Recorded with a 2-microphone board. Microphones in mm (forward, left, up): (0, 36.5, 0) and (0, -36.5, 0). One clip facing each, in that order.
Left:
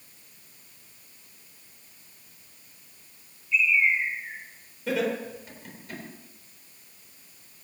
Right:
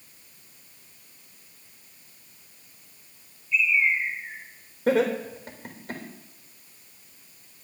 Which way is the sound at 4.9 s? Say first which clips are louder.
Right 5 dB; 50° right (ahead or behind).